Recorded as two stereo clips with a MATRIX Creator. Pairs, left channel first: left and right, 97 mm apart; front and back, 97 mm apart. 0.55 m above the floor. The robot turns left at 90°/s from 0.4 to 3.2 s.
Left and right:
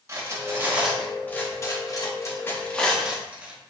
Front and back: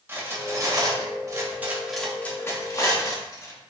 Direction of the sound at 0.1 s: 130° right.